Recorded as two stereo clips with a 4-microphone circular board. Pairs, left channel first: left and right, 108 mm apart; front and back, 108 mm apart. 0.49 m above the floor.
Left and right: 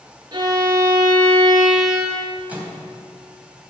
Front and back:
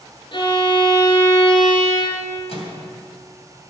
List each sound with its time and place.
0.3 s a violin: 40° right, 3.5 m
2.5 s a microwave: 15° right, 3 m